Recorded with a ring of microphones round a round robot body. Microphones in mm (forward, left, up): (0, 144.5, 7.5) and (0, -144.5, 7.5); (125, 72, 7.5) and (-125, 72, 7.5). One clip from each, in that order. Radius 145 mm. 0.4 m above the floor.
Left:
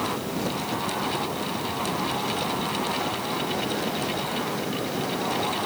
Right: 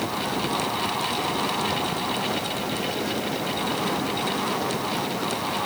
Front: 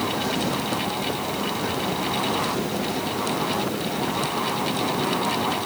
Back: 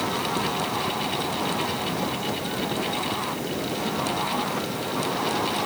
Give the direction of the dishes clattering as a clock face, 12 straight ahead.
No dishes clattering in this recording.